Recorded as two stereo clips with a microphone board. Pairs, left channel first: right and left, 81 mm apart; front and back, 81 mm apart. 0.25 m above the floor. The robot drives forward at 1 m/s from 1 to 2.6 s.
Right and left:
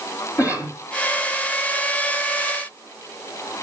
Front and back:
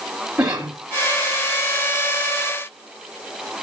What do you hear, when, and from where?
0.4 s a cough: 110° right, 1.8 m